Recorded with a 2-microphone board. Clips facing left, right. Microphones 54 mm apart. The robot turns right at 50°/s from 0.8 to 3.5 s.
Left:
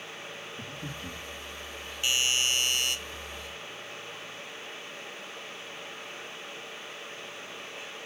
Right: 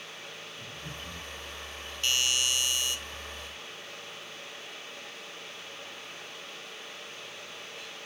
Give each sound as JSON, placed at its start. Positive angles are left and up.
{"t": 0.6, "sound": "breathing", "side_deg": 65, "distance_m": 9.0}
{"t": 2.0, "sound": "a doorbell", "azimuth_deg": 15, "distance_m": 1.1}